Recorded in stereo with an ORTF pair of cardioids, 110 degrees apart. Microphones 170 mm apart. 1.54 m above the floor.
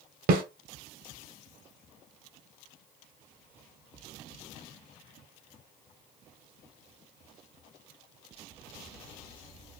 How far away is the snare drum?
About 1.0 m.